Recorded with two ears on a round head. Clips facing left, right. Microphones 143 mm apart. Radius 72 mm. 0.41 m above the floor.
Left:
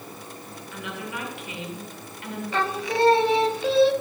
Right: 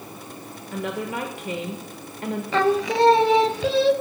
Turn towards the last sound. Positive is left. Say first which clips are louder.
# right 6 dB
turn(degrees=-65)  # may be behind; listen again after turning